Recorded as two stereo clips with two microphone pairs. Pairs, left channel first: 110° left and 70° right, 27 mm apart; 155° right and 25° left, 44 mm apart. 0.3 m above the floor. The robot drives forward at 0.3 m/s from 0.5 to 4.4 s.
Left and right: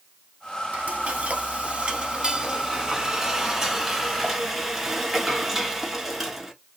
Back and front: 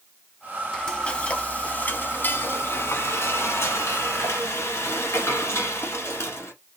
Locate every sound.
0.7 s frying: 80° right, 0.7 m; by 6.5 s 150° right, 1.2 m